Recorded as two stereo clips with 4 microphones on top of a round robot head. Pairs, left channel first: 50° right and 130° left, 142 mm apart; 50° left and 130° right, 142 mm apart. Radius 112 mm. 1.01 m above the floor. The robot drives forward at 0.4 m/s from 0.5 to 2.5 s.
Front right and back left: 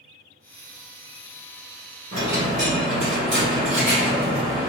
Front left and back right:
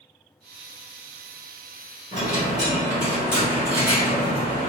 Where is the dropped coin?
170° left, 1.7 m.